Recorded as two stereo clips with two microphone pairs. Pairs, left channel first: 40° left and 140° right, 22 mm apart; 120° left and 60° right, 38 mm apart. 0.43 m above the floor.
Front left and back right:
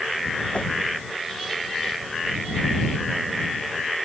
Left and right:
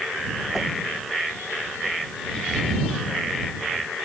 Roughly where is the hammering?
No hammering in this recording.